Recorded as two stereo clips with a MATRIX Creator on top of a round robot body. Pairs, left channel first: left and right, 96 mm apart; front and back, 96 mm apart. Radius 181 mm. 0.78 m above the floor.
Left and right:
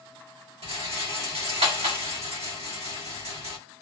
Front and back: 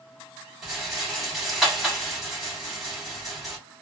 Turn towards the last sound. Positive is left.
turn(degrees=-90)